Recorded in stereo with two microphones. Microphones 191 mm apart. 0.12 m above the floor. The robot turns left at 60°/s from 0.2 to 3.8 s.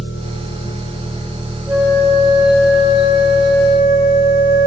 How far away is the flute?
About 4 m.